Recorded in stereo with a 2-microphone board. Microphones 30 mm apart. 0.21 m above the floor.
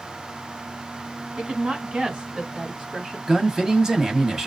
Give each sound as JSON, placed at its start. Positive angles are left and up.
{"t": 1.4, "sound": "a woman speaking", "side_deg": -45, "distance_m": 2.0}
{"t": 3.3, "sound": "a man speaking", "side_deg": -20, "distance_m": 1.0}